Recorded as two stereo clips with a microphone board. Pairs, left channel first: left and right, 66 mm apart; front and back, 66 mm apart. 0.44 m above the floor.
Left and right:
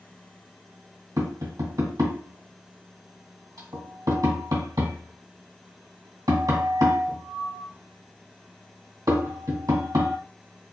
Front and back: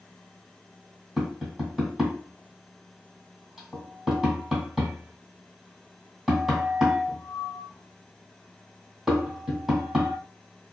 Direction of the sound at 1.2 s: 95° right.